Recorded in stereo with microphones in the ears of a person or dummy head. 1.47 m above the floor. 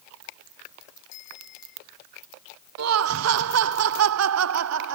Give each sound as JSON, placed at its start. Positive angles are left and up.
{"t": 1.1, "sound": "a bicycle bell", "side_deg": 65}
{"t": 2.8, "sound": "laughter", "side_deg": -85}